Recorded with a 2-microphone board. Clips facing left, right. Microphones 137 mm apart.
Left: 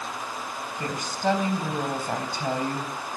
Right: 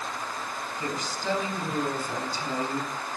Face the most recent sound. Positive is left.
turn(degrees=55)  # may be behind; listen again after turning